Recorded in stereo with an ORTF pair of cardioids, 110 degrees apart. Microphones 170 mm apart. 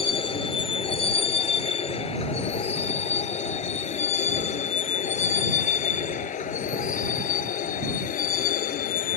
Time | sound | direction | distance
0.0 | a vehicle | 30° left | ?